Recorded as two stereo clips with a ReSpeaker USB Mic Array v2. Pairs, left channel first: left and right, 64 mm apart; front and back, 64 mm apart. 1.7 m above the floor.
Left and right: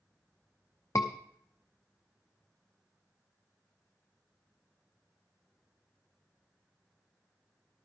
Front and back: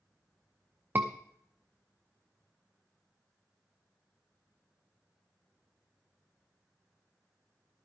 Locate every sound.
0.9 s a scream: 120° left, 0.7 m